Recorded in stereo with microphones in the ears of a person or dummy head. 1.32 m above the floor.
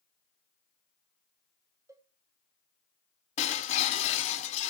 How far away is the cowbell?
About 0.7 m.